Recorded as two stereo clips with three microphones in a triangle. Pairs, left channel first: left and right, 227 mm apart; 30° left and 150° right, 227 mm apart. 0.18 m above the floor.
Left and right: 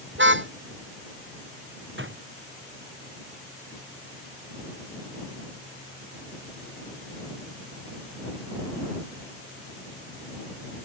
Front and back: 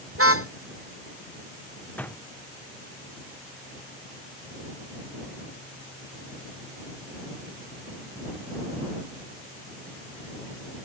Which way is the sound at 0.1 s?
130° right.